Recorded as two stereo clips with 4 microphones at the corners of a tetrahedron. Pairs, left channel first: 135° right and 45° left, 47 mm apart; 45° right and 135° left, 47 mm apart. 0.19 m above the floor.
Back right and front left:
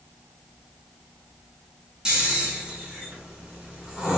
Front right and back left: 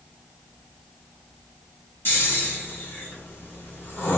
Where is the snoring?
25° right, 1.6 m.